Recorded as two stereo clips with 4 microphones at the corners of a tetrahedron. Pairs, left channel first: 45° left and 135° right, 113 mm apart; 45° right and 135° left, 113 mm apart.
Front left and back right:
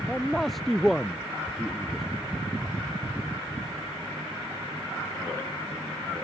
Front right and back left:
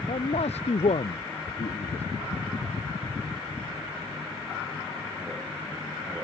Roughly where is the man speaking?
Ahead right.